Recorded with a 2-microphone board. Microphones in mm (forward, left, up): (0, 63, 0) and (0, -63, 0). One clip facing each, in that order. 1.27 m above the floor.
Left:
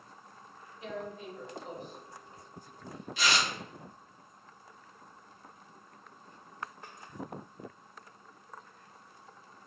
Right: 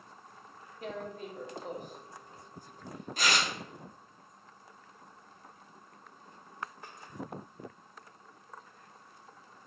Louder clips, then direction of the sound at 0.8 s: Even; 45° right (ahead or behind).